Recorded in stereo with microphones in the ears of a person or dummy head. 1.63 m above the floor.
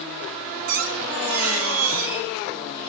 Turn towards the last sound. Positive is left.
turn(degrees=-65)  # may be behind; listen again after turning